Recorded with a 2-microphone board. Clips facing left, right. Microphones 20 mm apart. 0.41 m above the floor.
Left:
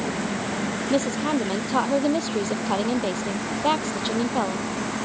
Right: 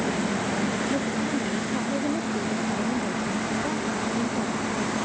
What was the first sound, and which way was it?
A woman speaking, 80° left.